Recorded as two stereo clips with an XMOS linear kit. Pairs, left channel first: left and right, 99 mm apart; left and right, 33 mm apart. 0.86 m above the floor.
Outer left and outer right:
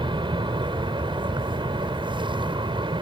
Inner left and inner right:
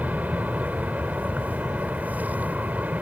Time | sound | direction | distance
0.0 | an aircraft | 55° right (ahead or behind) | ?